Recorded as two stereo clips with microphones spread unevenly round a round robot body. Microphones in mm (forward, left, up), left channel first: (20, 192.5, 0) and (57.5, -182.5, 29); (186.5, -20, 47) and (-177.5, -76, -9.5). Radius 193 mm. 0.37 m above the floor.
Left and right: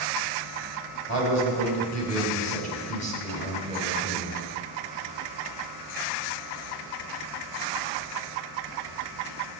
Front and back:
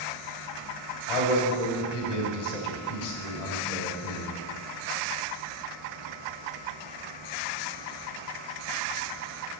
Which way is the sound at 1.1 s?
30° left.